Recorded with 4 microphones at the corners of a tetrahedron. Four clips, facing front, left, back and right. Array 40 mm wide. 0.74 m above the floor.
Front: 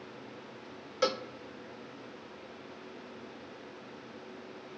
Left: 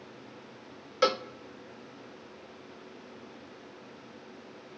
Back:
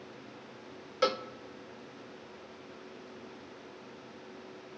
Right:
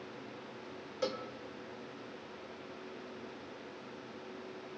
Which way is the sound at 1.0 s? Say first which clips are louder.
Left 11 dB, back 1 dB; 105° left.